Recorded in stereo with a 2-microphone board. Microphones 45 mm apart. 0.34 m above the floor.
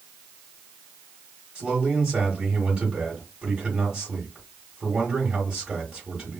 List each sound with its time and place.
1.6 s a man speaking: 20° right (ahead or behind), 1.4 m